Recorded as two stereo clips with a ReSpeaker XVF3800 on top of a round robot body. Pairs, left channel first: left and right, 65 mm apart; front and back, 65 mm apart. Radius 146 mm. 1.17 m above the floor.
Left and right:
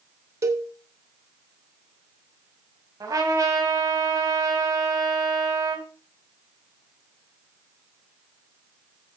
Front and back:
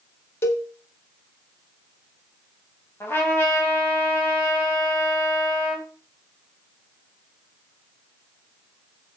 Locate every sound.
0.4 s a cowbell: 50° right, 0.6 m
3.0 s a trumpet: 55° right, 2.5 m